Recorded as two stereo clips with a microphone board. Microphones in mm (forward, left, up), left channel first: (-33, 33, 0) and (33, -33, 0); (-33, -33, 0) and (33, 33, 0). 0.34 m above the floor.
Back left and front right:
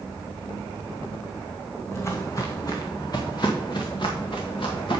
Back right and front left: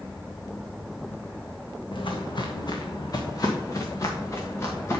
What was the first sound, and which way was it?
Footsteps, 165° right.